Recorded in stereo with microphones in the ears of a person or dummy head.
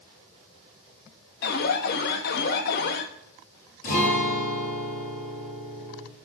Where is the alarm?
60° left (ahead or behind), 1.3 m.